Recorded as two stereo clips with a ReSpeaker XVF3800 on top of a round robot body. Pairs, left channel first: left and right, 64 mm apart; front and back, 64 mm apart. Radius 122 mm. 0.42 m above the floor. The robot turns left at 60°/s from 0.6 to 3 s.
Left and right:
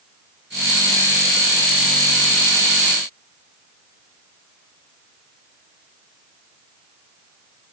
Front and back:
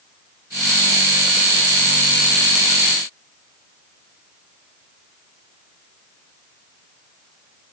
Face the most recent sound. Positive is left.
No sound to turn to.